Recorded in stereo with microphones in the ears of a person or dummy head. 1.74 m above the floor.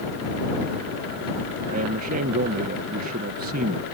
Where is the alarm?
No alarm in this recording.